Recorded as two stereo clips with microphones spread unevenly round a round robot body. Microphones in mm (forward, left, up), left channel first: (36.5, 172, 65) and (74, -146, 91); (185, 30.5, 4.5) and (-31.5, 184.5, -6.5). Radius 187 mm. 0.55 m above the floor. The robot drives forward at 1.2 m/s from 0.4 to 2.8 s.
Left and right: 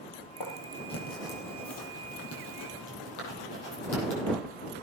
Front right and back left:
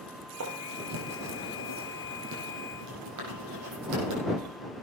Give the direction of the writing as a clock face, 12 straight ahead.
8 o'clock.